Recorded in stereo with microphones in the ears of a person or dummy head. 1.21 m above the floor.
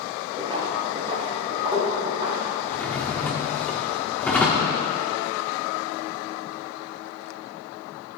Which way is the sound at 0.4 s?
25° right (ahead or behind).